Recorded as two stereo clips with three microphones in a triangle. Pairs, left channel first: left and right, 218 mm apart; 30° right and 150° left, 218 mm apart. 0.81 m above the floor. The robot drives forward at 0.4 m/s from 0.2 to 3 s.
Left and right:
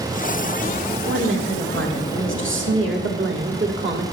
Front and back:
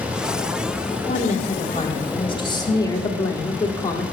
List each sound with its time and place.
1.1 s a woman speaking: 80° right, 1.9 m; by 4.0 s 105° right, 1.9 m